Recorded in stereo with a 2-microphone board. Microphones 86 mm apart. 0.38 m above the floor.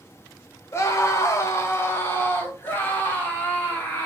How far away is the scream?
About 1.2 m.